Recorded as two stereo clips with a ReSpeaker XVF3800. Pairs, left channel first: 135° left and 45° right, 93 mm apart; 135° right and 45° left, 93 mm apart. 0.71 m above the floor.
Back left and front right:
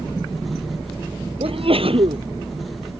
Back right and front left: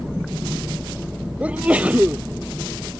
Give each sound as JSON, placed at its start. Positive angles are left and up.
{"t": 1.4, "sound": "a sneeze", "azimuth_deg": -30}